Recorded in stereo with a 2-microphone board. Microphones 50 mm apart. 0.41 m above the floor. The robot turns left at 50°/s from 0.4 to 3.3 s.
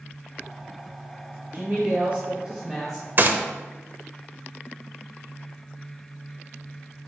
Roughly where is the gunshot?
Right.